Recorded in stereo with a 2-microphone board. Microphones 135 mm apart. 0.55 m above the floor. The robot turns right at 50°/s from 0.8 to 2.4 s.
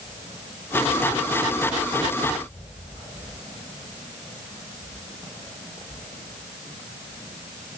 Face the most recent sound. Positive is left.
No sound to turn to.